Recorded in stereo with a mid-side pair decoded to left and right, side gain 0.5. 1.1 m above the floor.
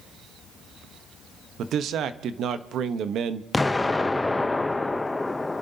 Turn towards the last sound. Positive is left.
turn(degrees=15)